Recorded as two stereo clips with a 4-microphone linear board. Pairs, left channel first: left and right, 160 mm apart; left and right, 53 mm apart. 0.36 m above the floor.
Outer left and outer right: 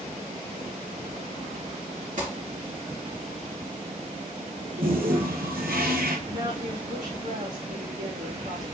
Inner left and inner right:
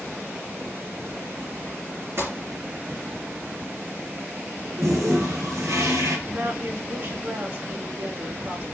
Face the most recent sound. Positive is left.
turn(degrees=-65)  # may be behind; listen again after turning